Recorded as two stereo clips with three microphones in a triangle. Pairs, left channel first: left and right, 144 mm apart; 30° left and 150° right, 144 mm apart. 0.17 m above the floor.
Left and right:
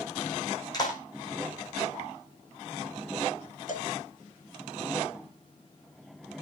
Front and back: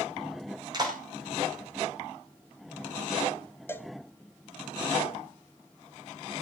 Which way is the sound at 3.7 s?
100° left.